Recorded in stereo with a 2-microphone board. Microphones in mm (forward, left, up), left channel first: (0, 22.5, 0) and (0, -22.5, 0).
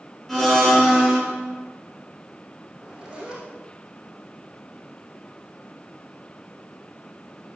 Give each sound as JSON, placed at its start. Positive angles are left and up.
{"t": 0.3, "sound": "a blender", "side_deg": 5, "distance_m": 2.5}
{"t": 2.7, "sound": "a zipper", "side_deg": -15, "distance_m": 3.5}